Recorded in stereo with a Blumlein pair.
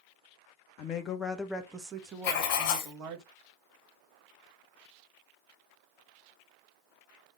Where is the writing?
40° left, 2.5 m.